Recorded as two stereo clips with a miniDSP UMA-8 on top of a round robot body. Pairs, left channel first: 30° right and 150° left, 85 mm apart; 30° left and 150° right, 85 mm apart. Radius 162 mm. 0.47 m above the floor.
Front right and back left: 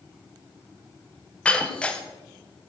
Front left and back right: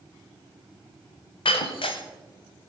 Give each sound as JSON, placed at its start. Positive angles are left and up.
{"t": 1.4, "sound": "breaking glass", "azimuth_deg": 50, "distance_m": 1.0}